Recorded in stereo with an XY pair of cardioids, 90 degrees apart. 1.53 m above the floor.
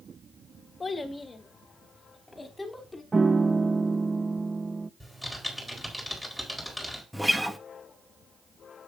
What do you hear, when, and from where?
0.8 s a child speaking: 30° left, 2 m; by 3.0 s 20° left, 3.5 m
3.1 s a piano: 25° right, 0.6 m
5.0 s typing on a keyboard: 5° right, 4.5 m
7.1 s a guitar: 5° right, 1.1 m